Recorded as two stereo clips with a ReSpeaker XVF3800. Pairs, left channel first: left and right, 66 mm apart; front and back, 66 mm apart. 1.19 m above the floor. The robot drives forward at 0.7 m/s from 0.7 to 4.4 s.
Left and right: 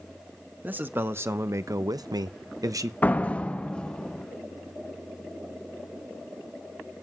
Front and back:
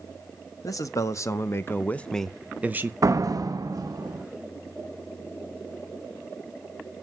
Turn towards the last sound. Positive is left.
turn(degrees=165)